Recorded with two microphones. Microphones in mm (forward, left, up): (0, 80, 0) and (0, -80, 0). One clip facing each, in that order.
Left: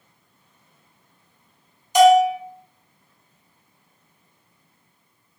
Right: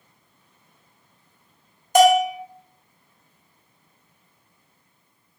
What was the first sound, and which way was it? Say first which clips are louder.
A bell: left 2 dB; 55° right (ahead or behind).